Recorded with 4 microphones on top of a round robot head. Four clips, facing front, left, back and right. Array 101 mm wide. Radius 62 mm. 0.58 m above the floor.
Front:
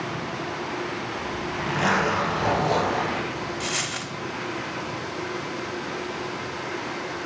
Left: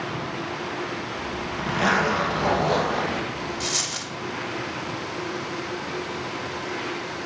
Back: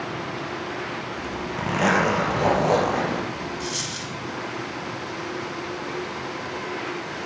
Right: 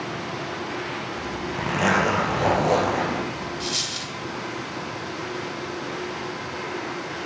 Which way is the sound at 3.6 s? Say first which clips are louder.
Even, front 1 dB; 25° left.